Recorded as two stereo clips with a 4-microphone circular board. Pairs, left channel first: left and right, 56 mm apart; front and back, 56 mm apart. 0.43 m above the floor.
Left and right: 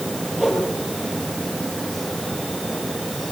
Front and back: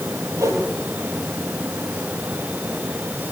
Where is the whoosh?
170° right, 9 m.